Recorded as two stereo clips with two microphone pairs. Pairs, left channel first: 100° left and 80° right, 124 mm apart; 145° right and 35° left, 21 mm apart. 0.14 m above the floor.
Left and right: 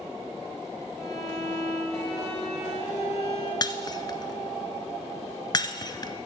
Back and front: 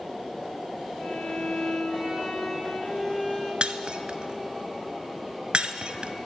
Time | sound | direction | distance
1.0 | a violin | 175° right | 3.5 m
3.6 | breaking glass | 45° left | 0.7 m